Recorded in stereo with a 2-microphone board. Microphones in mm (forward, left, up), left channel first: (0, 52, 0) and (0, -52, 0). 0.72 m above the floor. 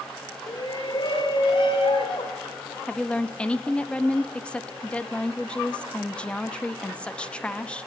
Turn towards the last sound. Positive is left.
turn(degrees=10)  # may be behind; listen again after turning